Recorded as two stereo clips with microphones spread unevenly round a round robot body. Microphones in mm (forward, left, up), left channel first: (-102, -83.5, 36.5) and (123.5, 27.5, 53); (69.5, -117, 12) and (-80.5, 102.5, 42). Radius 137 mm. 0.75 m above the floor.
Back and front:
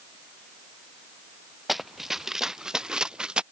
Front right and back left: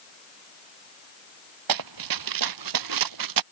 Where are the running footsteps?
115° left.